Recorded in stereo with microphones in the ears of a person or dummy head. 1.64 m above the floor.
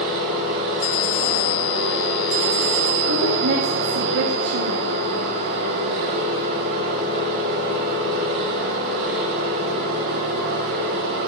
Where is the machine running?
65° right (ahead or behind), 2.5 m.